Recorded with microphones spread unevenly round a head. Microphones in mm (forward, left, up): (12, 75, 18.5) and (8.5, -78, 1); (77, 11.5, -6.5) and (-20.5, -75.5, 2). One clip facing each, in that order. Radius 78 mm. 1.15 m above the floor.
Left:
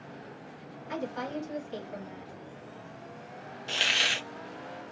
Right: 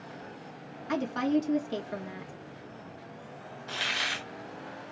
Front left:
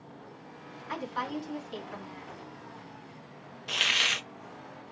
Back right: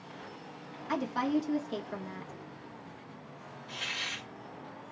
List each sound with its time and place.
0.9 s a woman speaking: 95° right, 2 m
3.7 s a hiss: 30° left, 0.6 m